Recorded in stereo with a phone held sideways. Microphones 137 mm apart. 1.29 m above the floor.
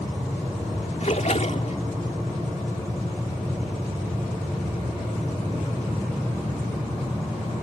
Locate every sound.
1.0 s a splash: 55° left (ahead or behind)